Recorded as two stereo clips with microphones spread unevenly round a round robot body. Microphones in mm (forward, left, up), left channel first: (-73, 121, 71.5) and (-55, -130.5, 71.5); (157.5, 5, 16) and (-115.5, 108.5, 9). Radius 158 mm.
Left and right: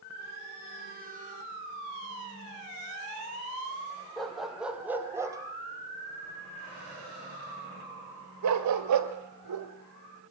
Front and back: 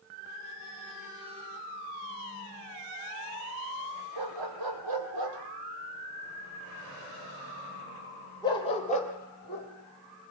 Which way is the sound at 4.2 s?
175° right.